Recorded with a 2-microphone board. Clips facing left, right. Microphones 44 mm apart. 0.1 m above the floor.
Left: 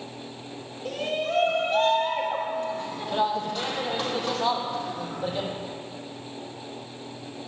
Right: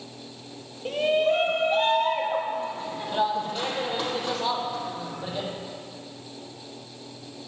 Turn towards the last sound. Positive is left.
turn(degrees=5)  # may be behind; listen again after turning